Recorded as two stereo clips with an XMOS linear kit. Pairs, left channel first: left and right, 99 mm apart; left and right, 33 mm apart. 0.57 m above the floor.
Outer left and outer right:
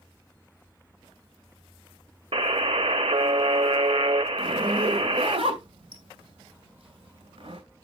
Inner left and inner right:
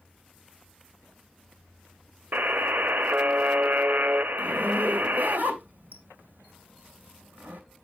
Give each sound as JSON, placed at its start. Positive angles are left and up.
{"t": 2.3, "sound": "a buzzer", "side_deg": -70, "distance_m": 0.6}
{"t": 4.4, "sound": "a zipper", "side_deg": -75, "distance_m": 2.0}